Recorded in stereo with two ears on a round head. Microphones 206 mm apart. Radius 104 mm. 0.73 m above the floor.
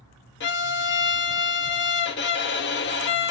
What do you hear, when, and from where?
0.4 s a violin: 50° left (ahead or behind), 0.7 m